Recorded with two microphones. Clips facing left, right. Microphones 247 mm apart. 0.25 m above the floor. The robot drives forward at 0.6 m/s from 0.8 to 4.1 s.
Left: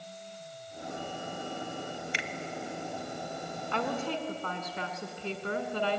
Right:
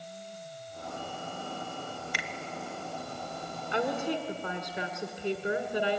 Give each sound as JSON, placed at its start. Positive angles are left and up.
{"t": 2.1, "sound": "a finger snap", "side_deg": 25, "distance_m": 1.1}
{"t": 3.7, "sound": "a woman speaking", "side_deg": -15, "distance_m": 1.9}